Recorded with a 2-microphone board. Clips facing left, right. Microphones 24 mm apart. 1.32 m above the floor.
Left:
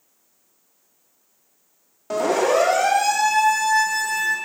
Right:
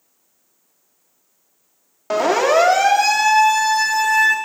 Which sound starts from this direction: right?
A siren, at 2.1 s.